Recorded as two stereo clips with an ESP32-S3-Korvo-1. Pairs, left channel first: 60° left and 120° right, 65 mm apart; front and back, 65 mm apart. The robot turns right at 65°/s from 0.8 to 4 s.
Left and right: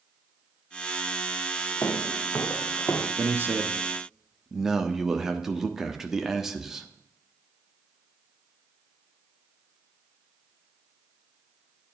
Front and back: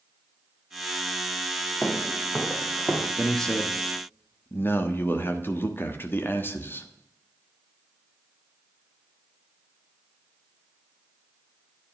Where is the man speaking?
95° right, 1.1 m; by 6.9 s 40° right, 1.1 m.